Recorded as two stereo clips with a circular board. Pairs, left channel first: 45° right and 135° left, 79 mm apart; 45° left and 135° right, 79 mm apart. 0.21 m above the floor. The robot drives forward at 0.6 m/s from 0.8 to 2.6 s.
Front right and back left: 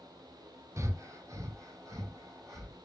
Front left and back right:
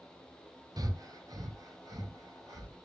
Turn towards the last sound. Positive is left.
turn(degrees=-175)